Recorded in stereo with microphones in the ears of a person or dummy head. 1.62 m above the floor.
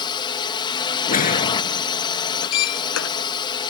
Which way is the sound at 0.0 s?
20° left (ahead or behind).